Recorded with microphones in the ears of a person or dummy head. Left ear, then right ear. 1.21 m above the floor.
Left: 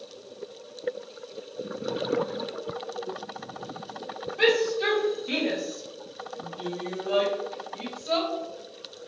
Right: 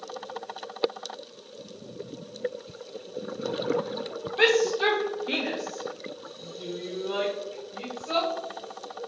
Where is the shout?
40° right (ahead or behind), 0.9 m; by 8.3 s 80° left, 1.5 m.